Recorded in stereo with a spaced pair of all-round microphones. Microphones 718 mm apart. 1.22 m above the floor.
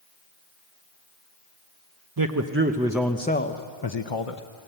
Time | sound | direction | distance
2.2 | a man speaking | 30° right (ahead or behind) | 0.9 m